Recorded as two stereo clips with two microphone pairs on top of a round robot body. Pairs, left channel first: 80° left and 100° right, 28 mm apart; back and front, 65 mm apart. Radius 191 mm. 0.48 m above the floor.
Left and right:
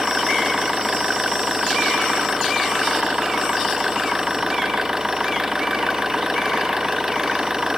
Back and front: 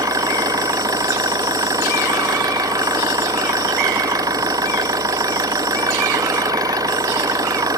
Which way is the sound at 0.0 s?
30° right.